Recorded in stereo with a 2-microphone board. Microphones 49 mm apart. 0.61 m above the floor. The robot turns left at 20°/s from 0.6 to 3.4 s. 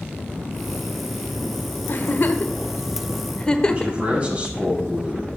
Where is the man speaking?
30° right (ahead or behind), 4.5 m.